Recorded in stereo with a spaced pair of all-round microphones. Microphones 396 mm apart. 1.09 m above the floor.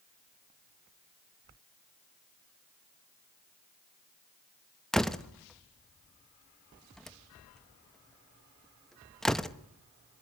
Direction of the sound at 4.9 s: Centre (ahead or behind).